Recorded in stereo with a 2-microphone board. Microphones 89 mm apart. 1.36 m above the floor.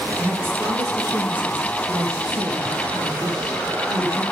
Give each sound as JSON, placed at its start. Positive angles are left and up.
{"t": 0.2, "sound": "a woman speaking", "side_deg": -20, "distance_m": 2.5}